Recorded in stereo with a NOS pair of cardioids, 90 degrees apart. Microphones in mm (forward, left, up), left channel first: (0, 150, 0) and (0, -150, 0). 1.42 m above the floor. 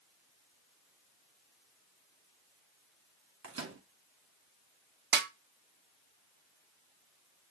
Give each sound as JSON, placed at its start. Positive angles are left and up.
{"t": 3.4, "sound": "a microwave", "azimuth_deg": -45, "distance_m": 1.8}
{"t": 5.1, "sound": "a snare drum", "azimuth_deg": -35, "distance_m": 0.8}